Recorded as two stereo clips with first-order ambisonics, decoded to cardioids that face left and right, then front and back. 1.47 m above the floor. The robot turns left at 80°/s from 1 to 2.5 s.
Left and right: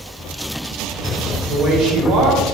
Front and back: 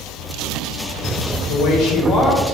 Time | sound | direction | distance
1.5 | a woman speaking | 10° right | 1.0 m